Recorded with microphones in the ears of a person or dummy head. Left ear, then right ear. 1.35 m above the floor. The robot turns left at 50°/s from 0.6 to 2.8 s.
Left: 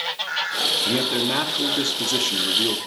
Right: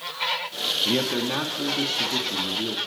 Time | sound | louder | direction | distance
0.8 | a man speaking | left 3 dB | 170° right | 1.1 m